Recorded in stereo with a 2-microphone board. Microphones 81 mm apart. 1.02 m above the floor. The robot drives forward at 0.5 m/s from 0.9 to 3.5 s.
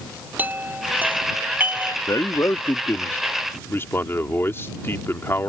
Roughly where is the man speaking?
Left.